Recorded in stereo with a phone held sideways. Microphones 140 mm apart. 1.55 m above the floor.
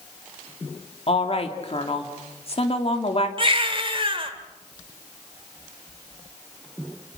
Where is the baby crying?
40° right (ahead or behind), 2.0 m.